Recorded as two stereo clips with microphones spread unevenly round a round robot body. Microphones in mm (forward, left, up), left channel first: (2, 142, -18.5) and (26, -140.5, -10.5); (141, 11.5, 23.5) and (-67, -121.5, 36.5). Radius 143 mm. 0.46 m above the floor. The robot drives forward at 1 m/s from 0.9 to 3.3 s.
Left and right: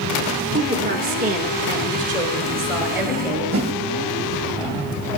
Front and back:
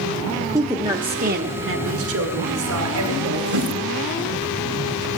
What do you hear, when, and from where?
0.5 s a woman speaking: 75° right, 0.8 m; by 3.4 s 170° right, 2.5 m
3.5 s a whoosh: 140° right, 1.6 m